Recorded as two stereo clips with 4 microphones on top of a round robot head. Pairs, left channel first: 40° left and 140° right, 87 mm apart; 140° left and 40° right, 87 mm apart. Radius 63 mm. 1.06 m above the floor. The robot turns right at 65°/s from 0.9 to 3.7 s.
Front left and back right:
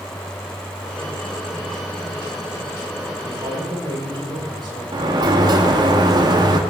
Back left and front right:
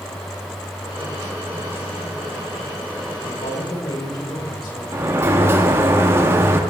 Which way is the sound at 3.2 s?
150° left.